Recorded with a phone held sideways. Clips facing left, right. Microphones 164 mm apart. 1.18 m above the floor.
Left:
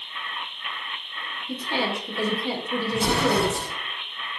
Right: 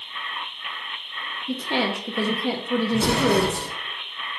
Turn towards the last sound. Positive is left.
turn(degrees=-70)  # may be behind; listen again after turning